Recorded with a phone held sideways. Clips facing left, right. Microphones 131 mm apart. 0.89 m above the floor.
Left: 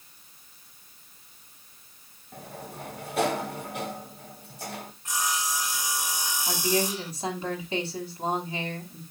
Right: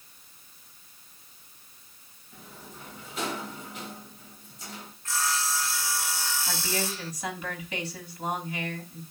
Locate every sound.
2.3 s a sliding door: 65° left (ahead or behind), 1.2 m
5.0 s sawing: 15° left (ahead or behind), 0.6 m
6.5 s a woman speaking: 30° left (ahead or behind), 6.5 m